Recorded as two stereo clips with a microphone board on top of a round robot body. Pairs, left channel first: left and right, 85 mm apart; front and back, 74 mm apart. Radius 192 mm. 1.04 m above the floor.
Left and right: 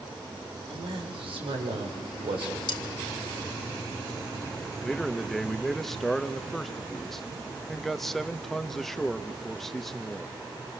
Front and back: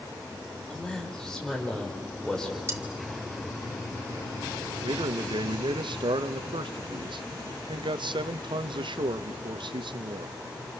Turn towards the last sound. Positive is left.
turn(degrees=175)